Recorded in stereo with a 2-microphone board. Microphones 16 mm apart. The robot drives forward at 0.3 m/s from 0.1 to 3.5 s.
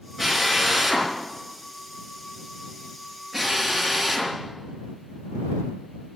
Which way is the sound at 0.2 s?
10° left (ahead or behind).